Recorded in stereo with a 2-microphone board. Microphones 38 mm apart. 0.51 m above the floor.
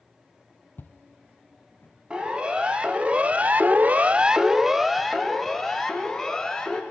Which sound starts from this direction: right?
A siren, at 2.1 s.